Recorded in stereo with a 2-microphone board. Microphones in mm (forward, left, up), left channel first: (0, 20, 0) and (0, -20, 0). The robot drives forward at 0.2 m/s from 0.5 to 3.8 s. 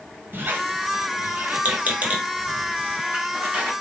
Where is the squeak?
55° right (ahead or behind), 0.7 m; by 3.7 s 30° right (ahead or behind), 1.1 m.